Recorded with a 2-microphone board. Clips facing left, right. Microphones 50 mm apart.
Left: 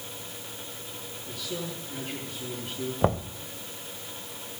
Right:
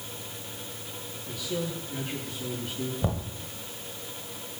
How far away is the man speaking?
About 9.5 m.